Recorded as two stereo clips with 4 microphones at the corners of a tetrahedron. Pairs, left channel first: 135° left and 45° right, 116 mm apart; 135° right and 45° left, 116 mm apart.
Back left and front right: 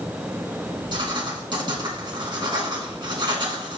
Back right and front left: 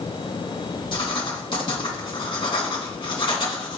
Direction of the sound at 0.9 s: 90° right.